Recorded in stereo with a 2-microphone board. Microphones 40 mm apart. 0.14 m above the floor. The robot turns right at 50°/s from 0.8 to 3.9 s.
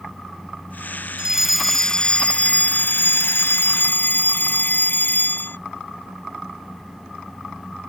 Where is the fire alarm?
20° right; by 5.6 s 115° left.